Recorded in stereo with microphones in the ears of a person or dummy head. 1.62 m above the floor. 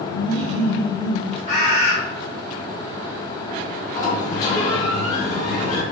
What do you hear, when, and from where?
0.1 s laughter: 65° right (ahead or behind), 1.1 m; by 1.4 s 15° right (ahead or behind), 0.8 m
1.5 s a bird: 50° left (ahead or behind), 1.4 m
4.0 s a sliding door: 30° left (ahead or behind), 1.6 m